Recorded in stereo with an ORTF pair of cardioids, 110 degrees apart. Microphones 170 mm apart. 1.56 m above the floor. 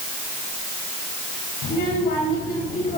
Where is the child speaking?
60° left, 5.5 m; by 3.0 s 50° left, 5.5 m.